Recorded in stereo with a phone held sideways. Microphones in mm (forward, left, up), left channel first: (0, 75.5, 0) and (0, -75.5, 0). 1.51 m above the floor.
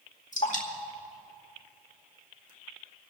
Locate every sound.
0.3 s dripping: 55° left (ahead or behind), 2.0 m